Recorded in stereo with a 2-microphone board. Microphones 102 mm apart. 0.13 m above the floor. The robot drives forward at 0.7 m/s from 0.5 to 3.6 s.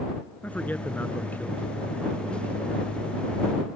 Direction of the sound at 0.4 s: 15° left (ahead or behind).